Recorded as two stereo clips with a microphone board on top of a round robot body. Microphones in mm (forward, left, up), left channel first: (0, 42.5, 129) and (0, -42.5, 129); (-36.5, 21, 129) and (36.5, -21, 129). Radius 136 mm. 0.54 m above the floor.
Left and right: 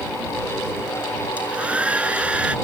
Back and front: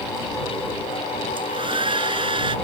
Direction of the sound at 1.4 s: 15° right.